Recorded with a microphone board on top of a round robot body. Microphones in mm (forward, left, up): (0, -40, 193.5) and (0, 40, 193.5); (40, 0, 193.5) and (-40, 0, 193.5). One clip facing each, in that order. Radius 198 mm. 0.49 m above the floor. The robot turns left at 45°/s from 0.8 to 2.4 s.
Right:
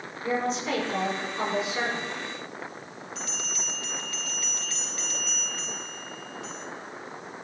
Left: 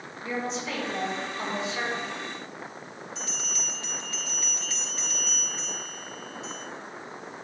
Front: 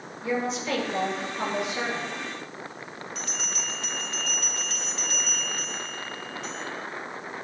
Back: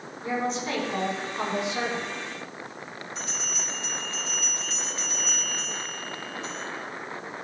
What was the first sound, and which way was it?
A woman speaking, 130° right.